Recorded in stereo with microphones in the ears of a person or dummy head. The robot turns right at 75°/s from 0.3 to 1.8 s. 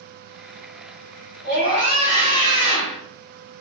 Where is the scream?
60° right (ahead or behind), 1.9 m; by 3.0 s 35° right (ahead or behind), 1.9 m.